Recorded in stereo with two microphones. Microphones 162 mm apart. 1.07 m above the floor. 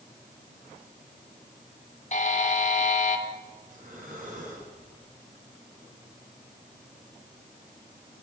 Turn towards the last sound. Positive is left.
turn(degrees=-55)  # may be behind; listen again after turning